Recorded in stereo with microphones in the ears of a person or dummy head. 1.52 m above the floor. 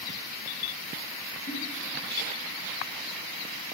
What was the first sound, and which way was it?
A giggle, 65° left (ahead or behind).